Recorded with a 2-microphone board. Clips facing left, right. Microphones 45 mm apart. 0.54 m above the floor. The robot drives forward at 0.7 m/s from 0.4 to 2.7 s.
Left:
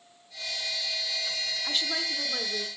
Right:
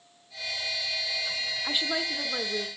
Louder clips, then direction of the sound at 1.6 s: Right 2 dB; 20° right (ahead or behind).